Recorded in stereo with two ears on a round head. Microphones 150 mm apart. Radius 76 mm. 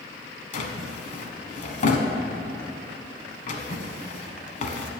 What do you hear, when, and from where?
0.5 s a drawer: 50° left (ahead or behind), 1.1 m